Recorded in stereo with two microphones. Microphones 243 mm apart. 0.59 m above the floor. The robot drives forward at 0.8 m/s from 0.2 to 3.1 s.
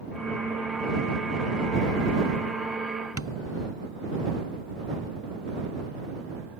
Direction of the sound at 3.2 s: 70° left (ahead or behind).